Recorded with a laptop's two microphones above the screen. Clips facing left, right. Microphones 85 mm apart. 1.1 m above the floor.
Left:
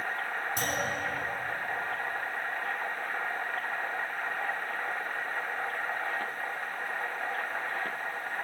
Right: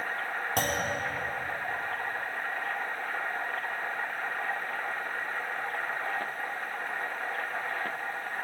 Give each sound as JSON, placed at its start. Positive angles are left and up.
{"t": 0.6, "sound": "a clunk", "side_deg": -75, "distance_m": 3.5}